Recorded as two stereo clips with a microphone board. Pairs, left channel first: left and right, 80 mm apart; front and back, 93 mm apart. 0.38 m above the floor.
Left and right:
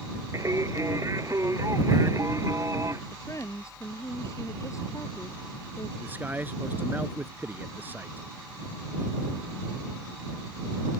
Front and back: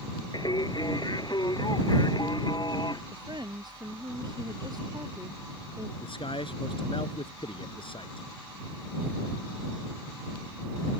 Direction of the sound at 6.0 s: 20° right.